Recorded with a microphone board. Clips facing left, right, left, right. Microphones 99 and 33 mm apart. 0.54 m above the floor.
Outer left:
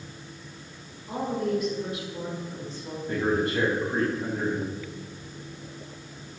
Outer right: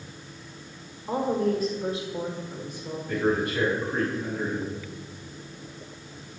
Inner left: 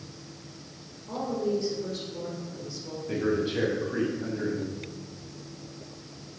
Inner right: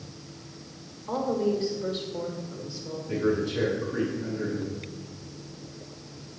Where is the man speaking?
30° left (ahead or behind), 4 m.